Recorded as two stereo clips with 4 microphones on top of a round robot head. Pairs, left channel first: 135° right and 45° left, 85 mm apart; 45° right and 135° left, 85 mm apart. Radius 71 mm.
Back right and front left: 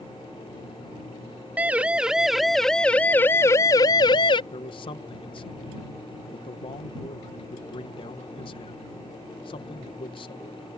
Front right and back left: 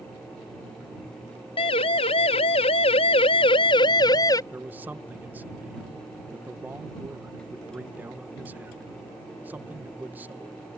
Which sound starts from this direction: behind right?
A man speaking, at 4.5 s.